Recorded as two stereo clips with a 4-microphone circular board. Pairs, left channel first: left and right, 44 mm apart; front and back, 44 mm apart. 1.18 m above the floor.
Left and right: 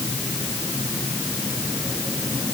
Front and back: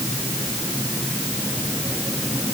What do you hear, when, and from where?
Only background noise.